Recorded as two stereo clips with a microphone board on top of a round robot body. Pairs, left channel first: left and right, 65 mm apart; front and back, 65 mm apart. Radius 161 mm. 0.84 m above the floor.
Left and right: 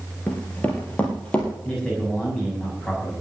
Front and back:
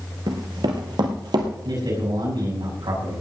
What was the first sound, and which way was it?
Running footsteps, 165° left.